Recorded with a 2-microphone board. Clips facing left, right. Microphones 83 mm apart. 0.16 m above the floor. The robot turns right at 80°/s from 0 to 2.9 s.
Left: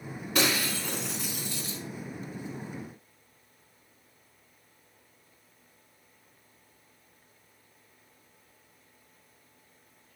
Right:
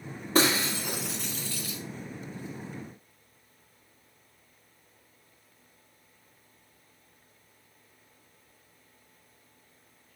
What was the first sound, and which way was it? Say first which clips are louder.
Breaking glass: right 3 dB; 60° right.